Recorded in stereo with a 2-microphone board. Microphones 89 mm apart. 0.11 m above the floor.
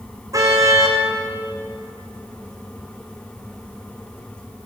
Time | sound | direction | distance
0.3 | a car horn | 40° right (ahead or behind) | 4.5 m